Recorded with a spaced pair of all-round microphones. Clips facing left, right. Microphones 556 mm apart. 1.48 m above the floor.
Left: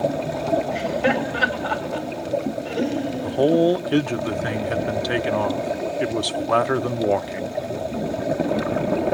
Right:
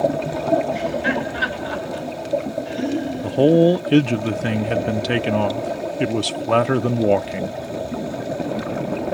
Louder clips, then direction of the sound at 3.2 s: Right 4 dB; 55° right (ahead or behind).